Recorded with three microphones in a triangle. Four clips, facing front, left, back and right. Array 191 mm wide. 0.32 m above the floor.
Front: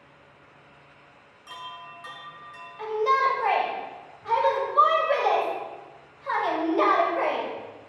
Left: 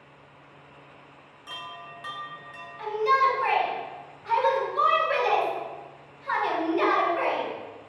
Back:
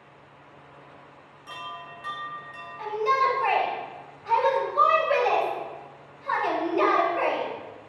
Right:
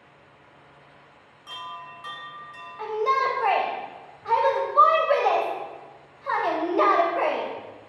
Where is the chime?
120° left, 1.4 m.